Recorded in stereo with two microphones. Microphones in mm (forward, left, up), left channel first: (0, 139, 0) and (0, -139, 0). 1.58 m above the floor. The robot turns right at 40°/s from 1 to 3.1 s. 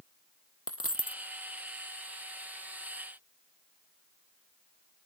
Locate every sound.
0.7 s a dropped coin: 50° left (ahead or behind); by 1.2 s 60° left (ahead or behind)